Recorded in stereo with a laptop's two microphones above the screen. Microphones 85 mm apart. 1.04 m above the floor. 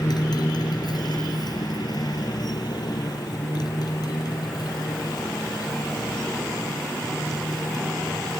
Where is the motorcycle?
60° left (ahead or behind).